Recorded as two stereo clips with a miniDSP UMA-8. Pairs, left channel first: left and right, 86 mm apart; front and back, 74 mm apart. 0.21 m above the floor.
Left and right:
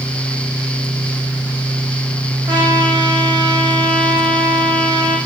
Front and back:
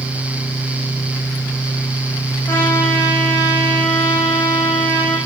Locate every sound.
2.5 s a trumpet: 55° right, 9 m